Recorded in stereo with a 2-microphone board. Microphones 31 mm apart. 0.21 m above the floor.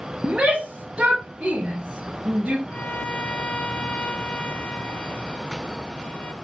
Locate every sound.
0.2 s a shout: 30° right (ahead or behind), 2.5 m
2.7 s a violin: 45° left (ahead or behind), 1.2 m